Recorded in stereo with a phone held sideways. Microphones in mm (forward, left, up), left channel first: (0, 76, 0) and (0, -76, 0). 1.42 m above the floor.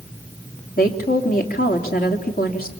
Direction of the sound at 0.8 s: 85° left.